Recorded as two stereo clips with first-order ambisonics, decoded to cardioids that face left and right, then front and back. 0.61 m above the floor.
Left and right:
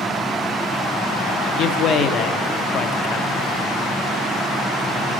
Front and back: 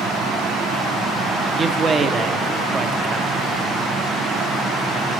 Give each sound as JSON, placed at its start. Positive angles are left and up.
{"t": 1.6, "sound": "a man speaking", "azimuth_deg": 115, "distance_m": 0.8}